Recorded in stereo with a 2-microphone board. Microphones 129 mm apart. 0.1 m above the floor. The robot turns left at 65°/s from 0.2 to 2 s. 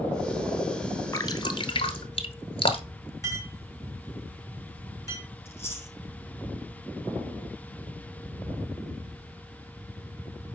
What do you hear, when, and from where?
1.1 s dripping: 25° left (ahead or behind), 1.1 m; by 3.1 s 45° left (ahead or behind), 1.1 m
3.2 s a clink: 25° left (ahead or behind), 5 m
5.5 s chewing: 20° left (ahead or behind), 4 m